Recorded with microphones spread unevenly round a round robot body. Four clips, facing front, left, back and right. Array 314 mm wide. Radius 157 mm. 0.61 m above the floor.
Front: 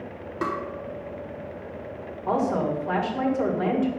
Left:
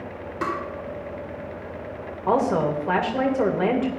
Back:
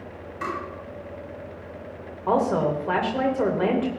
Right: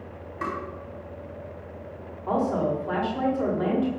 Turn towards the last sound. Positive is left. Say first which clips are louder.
# left 4 dB, back 2 dB
turn(degrees=120)